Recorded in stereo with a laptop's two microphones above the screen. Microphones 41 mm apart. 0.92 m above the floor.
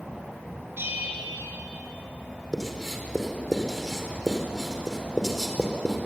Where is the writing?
10° left (ahead or behind), 4 m.